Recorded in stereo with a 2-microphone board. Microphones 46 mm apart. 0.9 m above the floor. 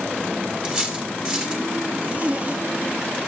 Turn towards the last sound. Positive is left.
turn(degrees=-30)  # may be behind; listen again after turning